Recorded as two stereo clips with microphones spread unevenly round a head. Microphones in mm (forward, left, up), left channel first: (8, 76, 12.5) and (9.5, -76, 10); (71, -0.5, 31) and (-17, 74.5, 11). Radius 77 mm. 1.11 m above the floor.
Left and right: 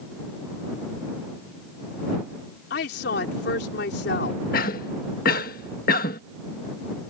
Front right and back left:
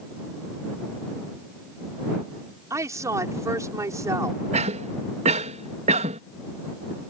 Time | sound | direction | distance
2.7 | a woman speaking | 75° left | ?
4.5 | a cough | 125° left | ?